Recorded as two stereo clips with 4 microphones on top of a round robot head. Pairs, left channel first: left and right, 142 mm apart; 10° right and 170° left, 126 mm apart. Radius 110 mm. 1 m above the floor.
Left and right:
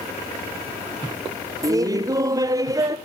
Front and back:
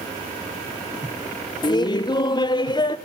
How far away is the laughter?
About 0.5 m.